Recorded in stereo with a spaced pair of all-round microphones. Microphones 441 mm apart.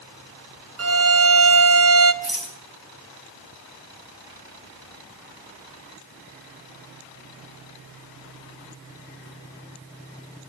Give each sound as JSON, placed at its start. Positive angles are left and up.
{"t": 0.8, "sound": "a violin", "side_deg": -35, "distance_m": 0.6}
{"t": 2.2, "sound": "a rattle", "side_deg": -55, "distance_m": 3.0}